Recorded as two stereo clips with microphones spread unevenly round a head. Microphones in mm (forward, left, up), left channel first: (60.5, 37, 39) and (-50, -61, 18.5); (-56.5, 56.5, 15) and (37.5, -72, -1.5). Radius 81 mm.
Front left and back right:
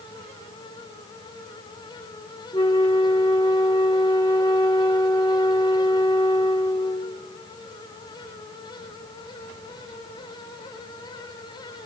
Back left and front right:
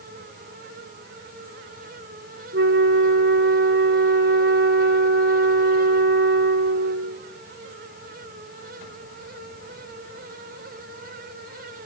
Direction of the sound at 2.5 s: 20° right.